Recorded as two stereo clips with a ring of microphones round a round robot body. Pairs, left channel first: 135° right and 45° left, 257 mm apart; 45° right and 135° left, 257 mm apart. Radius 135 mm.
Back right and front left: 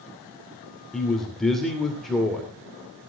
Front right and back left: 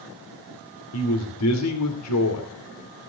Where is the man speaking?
45° right, 2.5 m.